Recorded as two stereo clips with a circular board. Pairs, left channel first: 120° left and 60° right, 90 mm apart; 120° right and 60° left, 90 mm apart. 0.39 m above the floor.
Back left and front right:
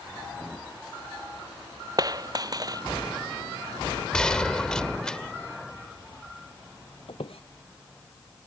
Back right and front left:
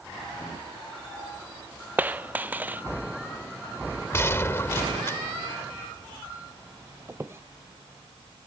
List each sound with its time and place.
2.0 s a dropped coin: 10° right
4.1 s a gunshot: 160° right
7.1 s a squeak: 125° left